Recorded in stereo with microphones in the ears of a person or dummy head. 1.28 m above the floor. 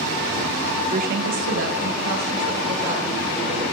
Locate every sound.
0.9 s a woman speaking: 30° right (ahead or behind), 0.7 m; by 3.6 s 45° right (ahead or behind), 3.5 m